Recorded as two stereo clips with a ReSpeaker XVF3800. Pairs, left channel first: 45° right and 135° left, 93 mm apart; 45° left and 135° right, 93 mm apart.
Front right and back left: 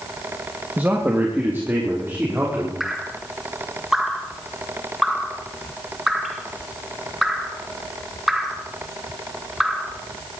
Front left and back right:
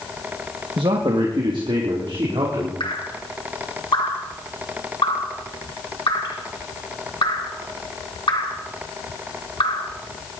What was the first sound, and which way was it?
A man speaking, 155° right.